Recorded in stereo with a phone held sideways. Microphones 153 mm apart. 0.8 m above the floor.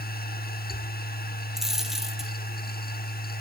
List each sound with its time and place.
0.0 s a machine running: 80° left, 1.3 m
1.6 s a dropped coin: 5° right (ahead or behind), 2 m